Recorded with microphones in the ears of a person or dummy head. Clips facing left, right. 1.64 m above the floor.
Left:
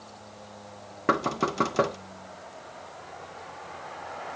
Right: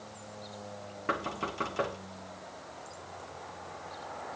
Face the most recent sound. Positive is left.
turn(degrees=55)  # may be behind; listen again after turning